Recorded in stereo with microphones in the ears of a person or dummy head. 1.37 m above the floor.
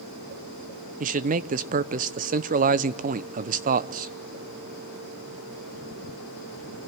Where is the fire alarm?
No fire alarm in this recording.